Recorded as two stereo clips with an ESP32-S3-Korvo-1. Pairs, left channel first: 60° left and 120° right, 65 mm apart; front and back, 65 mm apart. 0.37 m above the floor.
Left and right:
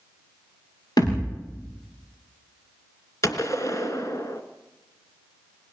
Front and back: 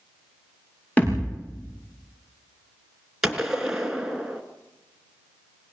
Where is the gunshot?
100° left, 2.5 m.